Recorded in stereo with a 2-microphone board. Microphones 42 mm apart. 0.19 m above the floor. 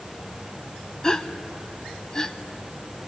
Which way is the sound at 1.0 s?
15° left (ahead or behind).